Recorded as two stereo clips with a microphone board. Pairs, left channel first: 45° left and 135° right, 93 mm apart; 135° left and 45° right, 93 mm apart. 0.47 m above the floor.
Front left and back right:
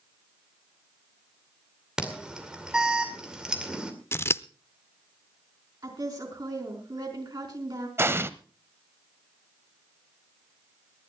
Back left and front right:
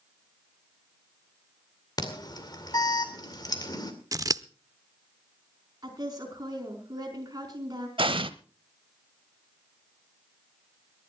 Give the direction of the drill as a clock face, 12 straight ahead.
I don't hear a drill.